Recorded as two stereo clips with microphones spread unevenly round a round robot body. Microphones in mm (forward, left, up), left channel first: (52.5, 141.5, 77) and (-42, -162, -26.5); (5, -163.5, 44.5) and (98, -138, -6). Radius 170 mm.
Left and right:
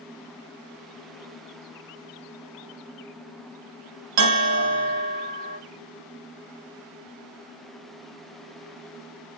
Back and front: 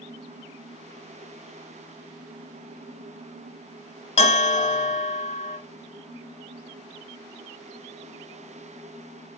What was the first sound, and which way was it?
A bell, 140° right.